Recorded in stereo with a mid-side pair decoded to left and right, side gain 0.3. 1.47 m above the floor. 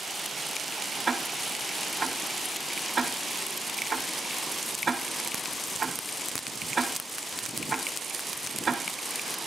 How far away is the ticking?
About 2 m.